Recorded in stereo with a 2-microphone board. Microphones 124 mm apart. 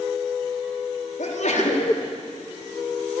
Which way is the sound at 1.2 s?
75° left (ahead or behind).